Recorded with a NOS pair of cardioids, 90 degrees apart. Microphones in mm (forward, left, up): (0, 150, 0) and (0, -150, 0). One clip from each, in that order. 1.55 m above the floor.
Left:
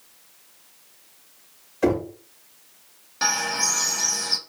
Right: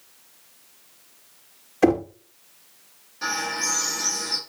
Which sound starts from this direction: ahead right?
Knocking, at 1.8 s.